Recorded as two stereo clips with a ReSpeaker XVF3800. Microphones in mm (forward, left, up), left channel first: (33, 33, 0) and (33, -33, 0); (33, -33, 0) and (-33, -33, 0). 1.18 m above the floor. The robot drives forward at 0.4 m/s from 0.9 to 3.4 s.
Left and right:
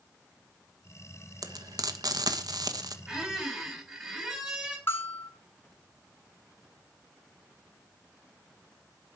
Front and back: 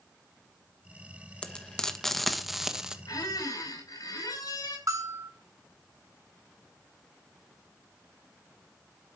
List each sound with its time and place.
1.4 s frying: 70° right, 1.3 m; by 3.0 s 100° right, 1.3 m
3.1 s a squeak: 5° right, 4.5 m
4.9 s a bell: 145° left, 5.5 m